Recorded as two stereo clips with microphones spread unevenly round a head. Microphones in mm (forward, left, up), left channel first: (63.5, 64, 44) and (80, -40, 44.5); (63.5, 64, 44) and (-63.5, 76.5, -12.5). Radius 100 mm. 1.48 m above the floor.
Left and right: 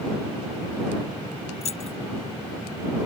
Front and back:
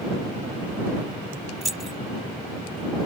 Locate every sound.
1.6 s keys jangling: 80° left